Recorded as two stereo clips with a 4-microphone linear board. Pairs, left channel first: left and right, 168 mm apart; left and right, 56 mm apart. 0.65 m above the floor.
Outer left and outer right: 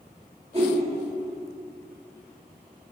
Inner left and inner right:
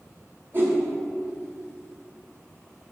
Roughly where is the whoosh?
Right.